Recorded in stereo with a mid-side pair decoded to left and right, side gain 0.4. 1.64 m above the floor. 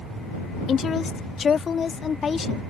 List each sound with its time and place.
0.7 s a woman speaking: 55° left; by 2.6 s 45° left